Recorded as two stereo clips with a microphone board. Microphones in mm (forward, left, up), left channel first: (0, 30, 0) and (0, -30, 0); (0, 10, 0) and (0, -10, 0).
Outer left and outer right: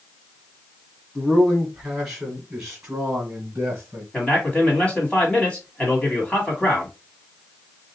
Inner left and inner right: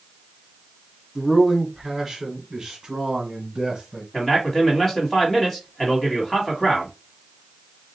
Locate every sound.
1.1 s a man speaking: 10° left (ahead or behind), 1.4 m; by 4.0 s 20° right (ahead or behind), 2.5 m
4.1 s a man speaking: 20° left (ahead or behind), 1.6 m